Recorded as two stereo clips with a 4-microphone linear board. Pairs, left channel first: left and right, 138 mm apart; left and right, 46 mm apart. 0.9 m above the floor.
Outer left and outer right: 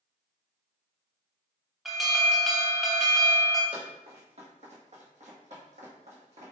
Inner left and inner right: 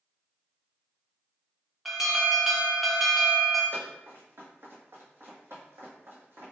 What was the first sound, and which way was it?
An alarm, centre (ahead or behind).